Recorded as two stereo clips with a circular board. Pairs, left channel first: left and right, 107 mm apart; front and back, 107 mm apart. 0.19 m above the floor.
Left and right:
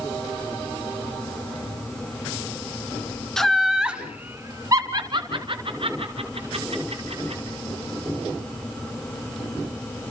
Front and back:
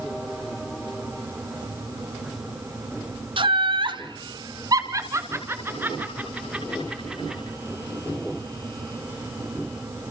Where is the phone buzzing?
I don't hear a phone buzzing.